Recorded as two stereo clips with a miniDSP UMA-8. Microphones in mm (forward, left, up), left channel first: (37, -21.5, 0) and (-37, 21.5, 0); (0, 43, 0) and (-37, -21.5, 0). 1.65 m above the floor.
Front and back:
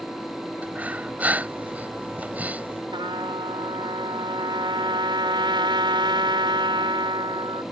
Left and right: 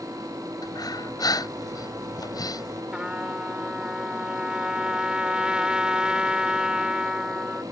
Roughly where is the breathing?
Left.